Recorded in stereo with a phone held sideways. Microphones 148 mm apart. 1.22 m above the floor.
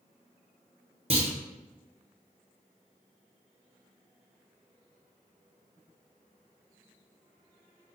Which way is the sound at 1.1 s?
40° right (ahead or behind).